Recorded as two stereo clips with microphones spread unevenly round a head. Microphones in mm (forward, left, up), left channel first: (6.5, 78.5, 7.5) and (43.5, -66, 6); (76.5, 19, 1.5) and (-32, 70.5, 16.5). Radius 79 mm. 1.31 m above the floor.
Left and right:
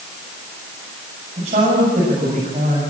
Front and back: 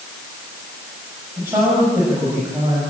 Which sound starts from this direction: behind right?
A man speaking, at 1.4 s.